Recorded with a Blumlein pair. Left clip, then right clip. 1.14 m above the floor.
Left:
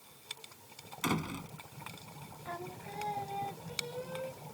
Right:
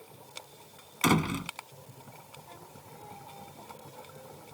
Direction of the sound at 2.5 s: 35° left.